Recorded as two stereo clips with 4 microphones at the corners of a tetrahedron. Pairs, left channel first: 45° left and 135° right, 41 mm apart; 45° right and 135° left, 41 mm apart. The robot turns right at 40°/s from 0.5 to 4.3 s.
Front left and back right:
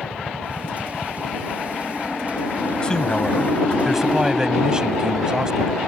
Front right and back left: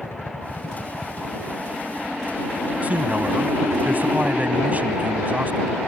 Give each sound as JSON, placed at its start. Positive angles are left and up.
{"t": 0.0, "sound": "a helicopter", "azimuth_deg": -20}
{"t": 2.8, "sound": "a man speaking", "azimuth_deg": 100}